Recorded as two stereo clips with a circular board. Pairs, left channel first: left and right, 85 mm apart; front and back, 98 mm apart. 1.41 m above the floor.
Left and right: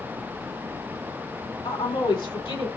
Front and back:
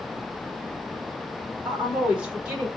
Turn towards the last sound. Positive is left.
turn(degrees=100)